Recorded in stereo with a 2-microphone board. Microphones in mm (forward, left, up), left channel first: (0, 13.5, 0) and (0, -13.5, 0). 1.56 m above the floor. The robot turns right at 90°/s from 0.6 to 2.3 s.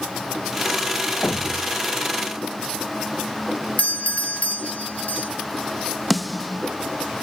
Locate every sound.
1.2 s a thud: 125° left; by 1.8 s 175° left
3.8 s a doorbell: 65° left (ahead or behind)
6.1 s a snare drum: centre (ahead or behind)